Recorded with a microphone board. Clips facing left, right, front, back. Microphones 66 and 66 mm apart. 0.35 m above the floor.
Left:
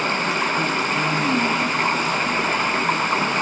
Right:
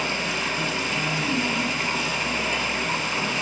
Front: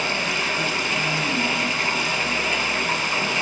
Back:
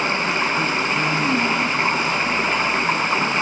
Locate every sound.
0.0 s running water: 125° left, 2 m